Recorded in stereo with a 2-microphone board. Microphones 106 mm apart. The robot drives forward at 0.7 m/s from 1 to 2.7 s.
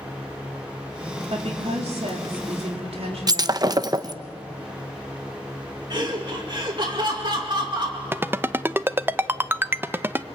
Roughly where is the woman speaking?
Right.